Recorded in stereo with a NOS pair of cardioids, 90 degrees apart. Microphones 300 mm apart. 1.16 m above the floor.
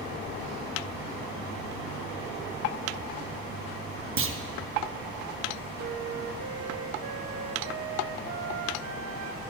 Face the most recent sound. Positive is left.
turn(degrees=-60)